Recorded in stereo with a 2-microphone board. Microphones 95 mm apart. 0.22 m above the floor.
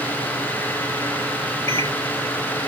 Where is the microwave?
35° left (ahead or behind), 3.5 m.